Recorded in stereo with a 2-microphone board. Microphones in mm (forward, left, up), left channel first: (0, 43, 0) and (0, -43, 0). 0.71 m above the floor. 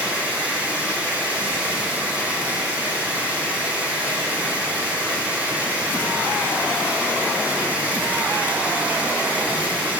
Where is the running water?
15° right (ahead or behind), 2.5 m.